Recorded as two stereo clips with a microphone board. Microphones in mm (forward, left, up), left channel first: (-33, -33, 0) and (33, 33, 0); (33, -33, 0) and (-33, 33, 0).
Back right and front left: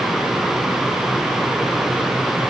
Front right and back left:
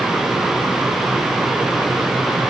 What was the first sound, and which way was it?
Only background noise.